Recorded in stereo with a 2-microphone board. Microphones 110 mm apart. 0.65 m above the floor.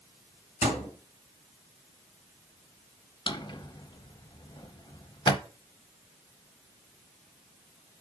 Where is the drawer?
45° left (ahead or behind), 0.7 m.